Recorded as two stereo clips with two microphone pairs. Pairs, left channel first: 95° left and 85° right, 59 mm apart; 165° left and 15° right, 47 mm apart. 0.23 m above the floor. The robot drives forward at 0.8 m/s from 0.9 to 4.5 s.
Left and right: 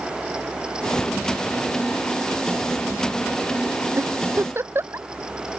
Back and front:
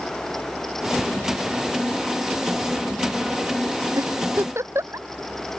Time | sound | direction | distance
1.0 | ticking | 75° right | ?
4.0 | a giggle | 35° right | ?